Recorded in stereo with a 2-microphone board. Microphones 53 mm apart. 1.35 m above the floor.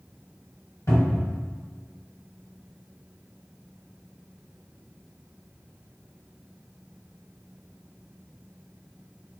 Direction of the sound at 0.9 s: 80° left.